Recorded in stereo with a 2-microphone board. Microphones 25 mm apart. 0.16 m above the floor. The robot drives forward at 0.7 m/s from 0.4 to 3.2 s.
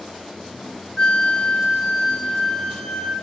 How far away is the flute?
About 0.7 m.